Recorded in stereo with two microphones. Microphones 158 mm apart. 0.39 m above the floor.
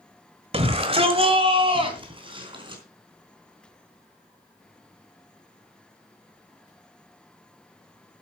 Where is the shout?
40° right (ahead or behind), 1.6 m; by 2.8 s 30° right (ahead or behind), 4.5 m.